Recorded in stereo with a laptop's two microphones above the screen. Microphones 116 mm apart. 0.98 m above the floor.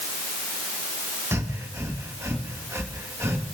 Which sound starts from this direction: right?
Breathing, at 1.3 s.